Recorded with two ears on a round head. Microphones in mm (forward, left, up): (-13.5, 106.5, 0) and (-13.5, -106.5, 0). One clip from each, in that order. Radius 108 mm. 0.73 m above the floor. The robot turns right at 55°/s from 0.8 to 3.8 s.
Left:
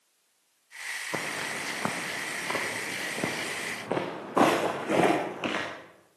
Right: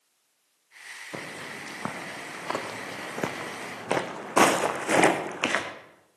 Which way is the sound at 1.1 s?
60° left (ahead or behind).